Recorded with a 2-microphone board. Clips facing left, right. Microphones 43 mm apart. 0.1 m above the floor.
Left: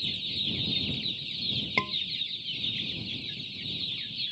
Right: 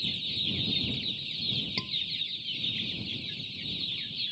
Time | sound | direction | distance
1.8 | a scream | 45° left (ahead or behind) | ?